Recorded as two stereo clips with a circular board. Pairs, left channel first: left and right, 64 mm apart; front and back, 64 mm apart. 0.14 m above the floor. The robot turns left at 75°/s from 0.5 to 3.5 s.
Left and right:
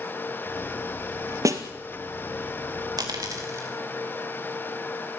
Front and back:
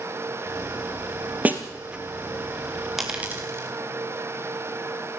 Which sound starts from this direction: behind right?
A snare drum, at 1.4 s.